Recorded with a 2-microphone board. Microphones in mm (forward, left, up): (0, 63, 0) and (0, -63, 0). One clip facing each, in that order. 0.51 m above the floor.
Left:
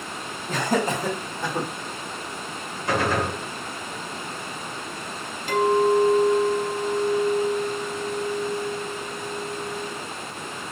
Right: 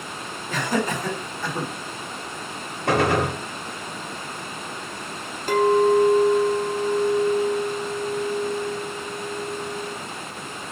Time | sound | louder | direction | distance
0.5 | laughter | left 1 dB | 40° left (ahead or behind) | 1.4 m
2.9 | a gunshot | right 3 dB | 70° right (ahead or behind) | 0.9 m
5.5 | a clink | right 2 dB | 45° right (ahead or behind) | 0.9 m